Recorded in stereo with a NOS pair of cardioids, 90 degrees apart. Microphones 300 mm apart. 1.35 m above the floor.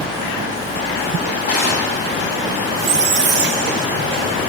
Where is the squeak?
40° right, 0.6 m.